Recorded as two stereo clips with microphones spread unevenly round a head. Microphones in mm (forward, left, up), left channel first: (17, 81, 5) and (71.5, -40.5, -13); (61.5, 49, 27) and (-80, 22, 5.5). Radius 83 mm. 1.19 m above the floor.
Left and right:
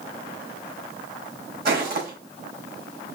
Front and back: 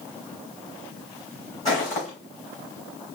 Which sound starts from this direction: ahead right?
Footsteps, at 1.6 s.